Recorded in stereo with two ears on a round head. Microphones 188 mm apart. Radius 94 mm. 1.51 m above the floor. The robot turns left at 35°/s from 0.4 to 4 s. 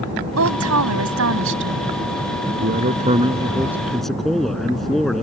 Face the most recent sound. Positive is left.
turn(degrees=180)